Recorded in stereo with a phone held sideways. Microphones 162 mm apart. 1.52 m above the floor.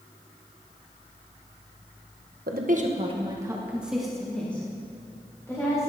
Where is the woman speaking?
70° right (ahead or behind), 1.3 m; by 5.9 s 20° left (ahead or behind), 4 m.